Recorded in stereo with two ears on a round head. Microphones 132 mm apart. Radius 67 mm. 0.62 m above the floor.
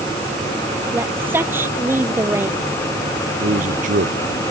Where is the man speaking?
60° right (ahead or behind).